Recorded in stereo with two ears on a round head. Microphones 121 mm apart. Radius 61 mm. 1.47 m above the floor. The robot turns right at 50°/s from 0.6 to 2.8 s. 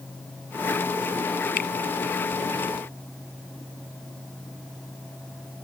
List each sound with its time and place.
1.6 s a finger snap: 70° left (ahead or behind); by 1.7 s 75° left (ahead or behind)